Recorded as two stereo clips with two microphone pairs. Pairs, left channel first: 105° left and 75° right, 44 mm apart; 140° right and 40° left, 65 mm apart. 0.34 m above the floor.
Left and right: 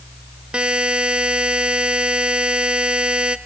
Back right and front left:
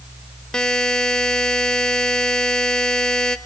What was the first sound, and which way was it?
A buzzer, 65° right.